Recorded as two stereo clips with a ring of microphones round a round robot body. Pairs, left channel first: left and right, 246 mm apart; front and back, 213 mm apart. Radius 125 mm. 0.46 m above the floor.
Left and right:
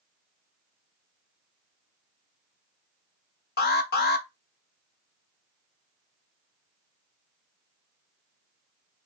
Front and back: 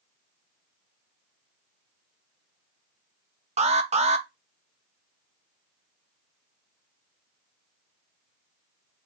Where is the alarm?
130° left, 0.9 m.